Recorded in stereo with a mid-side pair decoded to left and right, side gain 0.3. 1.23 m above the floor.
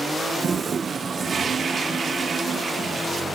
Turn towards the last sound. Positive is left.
turn(degrees=-55)